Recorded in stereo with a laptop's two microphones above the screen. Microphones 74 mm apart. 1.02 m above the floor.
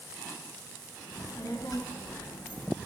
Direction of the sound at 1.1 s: 70° left (ahead or behind).